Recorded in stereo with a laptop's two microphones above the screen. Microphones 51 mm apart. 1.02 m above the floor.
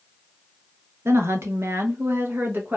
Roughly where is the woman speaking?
Right.